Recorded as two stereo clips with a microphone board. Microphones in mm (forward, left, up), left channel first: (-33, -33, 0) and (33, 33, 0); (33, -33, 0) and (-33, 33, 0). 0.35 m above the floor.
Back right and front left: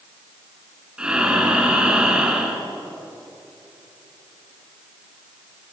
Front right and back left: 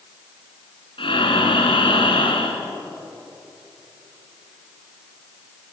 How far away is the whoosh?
No whoosh in this recording.